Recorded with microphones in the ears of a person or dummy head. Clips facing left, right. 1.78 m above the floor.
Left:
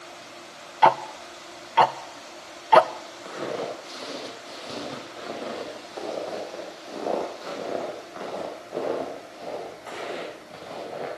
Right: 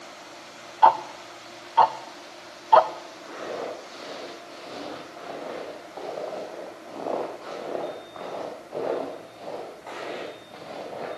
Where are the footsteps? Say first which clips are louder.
Left 2 dB; 50° left (ahead or behind), 5 m; by 11.1 s 5° left (ahead or behind), 6.5 m.